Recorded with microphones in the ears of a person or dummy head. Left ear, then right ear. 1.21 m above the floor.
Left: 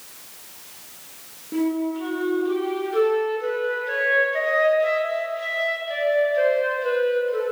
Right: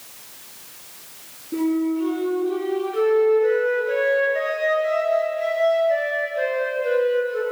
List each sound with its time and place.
1.5 s a flute: 50° left (ahead or behind), 9 m